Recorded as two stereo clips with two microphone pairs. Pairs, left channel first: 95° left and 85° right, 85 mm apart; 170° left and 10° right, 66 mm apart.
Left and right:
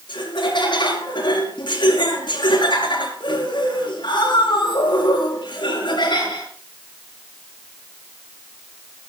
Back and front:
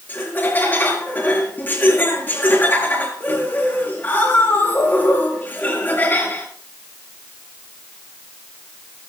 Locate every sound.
0.1 s laughter: 110° left, 7 m